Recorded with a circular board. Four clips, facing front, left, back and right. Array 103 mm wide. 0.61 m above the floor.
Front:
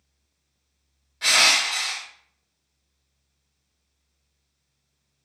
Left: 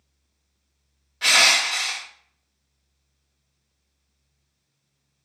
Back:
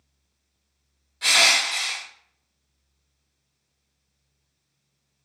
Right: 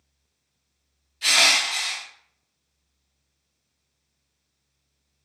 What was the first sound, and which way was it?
Crushing, 70° left.